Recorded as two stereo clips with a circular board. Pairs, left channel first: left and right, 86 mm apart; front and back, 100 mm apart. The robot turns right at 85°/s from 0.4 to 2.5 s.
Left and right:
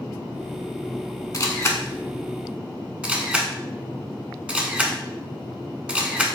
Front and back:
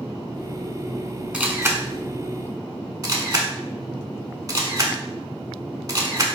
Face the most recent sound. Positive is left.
turn(degrees=-155)